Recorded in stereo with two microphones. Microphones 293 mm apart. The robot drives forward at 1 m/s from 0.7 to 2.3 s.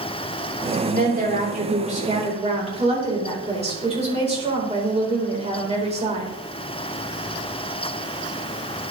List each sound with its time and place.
0.8 s a woman speaking: 30° right (ahead or behind), 3 m; by 6.3 s 20° right (ahead or behind), 4.5 m